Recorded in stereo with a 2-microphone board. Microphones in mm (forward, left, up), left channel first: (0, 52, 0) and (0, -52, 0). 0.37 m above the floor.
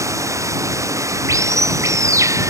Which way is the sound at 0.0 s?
30° right (ahead or behind).